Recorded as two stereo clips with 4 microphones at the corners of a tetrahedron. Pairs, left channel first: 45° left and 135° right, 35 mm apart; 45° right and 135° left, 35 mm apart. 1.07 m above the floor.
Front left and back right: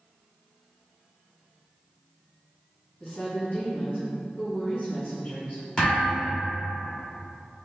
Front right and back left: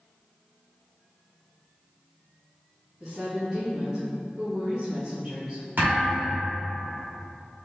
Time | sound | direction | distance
3.0 | a woman speaking | 90° left | 1.8 m
5.8 | a thud | 110° left | 1.8 m